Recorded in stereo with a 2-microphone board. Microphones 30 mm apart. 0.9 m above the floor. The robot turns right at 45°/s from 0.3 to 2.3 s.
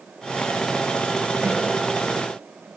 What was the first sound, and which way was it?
A snare drum, 80° right.